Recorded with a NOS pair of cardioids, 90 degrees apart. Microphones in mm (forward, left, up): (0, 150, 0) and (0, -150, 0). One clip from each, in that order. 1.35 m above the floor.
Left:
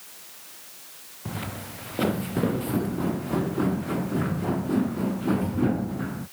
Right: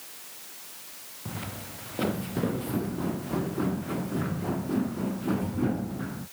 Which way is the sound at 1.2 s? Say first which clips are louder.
Left 4 dB; 30° left.